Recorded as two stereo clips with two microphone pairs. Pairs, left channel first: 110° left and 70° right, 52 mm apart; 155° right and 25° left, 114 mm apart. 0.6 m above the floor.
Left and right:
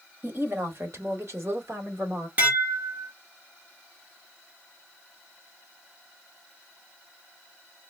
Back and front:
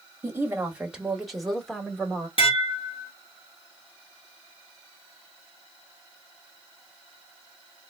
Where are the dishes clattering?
125° right, 1.0 m.